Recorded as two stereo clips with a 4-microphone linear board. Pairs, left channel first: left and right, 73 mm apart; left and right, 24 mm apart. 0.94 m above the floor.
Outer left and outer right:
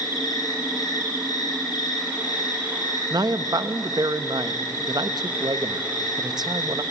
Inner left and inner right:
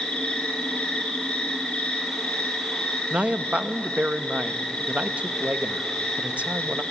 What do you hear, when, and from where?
0.0 s an insect: 65° left (ahead or behind), 3.5 m
3.1 s a man speaking: 70° right (ahead or behind), 0.8 m